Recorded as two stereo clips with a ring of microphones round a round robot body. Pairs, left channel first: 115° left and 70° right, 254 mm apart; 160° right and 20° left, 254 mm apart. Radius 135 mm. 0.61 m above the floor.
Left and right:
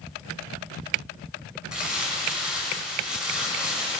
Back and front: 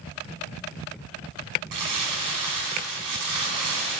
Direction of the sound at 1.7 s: 20° left.